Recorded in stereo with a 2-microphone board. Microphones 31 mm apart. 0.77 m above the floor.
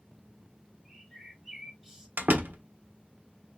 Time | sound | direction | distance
0.8 | a bird | 15° right (ahead or behind) | 2 m
2.2 | a door slam | 80° right | 0.9 m